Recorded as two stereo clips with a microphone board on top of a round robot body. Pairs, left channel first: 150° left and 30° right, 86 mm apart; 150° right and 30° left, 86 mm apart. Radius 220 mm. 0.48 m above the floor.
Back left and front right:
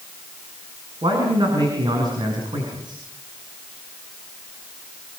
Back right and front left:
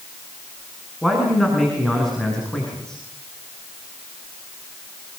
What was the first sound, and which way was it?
A man speaking, 60° right.